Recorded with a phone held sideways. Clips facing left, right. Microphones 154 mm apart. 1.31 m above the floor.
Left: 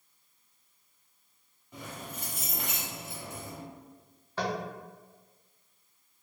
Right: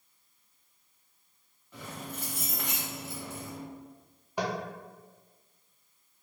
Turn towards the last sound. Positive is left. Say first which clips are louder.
# even
turn(degrees=-15)  # may be behind; listen again after turning